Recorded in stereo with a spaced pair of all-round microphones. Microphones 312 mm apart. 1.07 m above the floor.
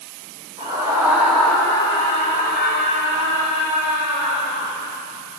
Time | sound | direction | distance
0.6 | a scream | 15° right (ahead or behind) | 3.5 m